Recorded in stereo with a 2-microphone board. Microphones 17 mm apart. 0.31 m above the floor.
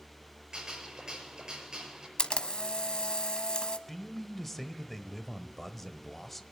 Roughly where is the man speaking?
Centre.